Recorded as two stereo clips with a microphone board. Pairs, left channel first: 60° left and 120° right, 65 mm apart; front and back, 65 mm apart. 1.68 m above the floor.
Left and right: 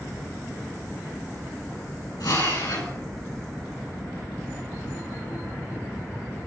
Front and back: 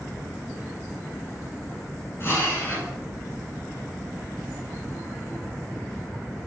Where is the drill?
50° left, 9 m.